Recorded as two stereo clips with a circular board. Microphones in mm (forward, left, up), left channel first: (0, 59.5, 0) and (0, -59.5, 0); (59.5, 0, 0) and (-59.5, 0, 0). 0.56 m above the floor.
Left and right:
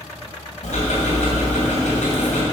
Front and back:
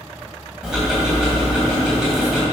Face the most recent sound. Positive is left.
turn(degrees=95)